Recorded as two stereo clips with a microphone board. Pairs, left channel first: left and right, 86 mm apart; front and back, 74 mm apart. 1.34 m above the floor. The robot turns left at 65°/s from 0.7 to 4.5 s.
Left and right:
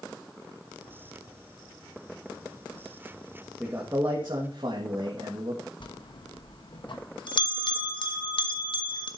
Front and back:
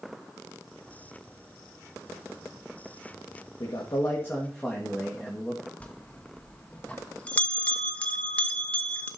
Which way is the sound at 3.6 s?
20° right.